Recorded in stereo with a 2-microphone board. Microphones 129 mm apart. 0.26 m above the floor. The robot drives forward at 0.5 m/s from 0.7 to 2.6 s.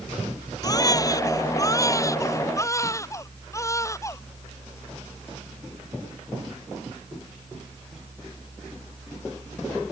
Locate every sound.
0.6 s a baby crying: 30° left (ahead or behind); by 4.2 s 25° left (ahead or behind)